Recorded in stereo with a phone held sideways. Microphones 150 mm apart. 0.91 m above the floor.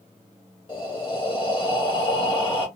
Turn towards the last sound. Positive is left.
turn(degrees=35)  # may be behind; listen again after turning